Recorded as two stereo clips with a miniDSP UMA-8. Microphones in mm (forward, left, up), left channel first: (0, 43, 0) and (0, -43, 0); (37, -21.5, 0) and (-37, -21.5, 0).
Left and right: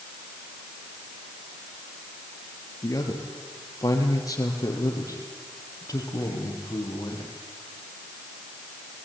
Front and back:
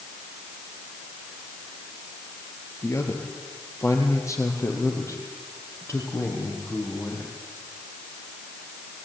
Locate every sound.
2.8 s a man speaking: 45° left, 4 m